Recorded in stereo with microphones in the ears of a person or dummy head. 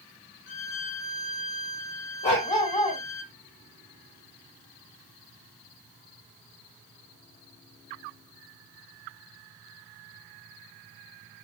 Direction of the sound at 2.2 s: 30° left (ahead or behind).